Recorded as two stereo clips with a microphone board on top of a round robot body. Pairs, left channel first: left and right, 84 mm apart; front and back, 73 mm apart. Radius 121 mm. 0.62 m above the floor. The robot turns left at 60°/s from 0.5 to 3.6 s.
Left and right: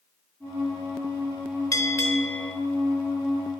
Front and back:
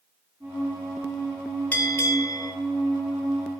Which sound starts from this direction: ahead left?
A bell, at 1.7 s.